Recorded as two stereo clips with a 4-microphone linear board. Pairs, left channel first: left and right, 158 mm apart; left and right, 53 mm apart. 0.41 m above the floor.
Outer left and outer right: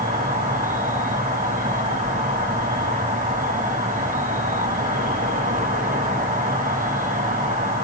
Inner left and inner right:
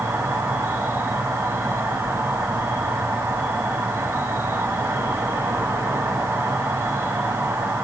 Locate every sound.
0.0 s an insect: 55° right (ahead or behind), 1.6 m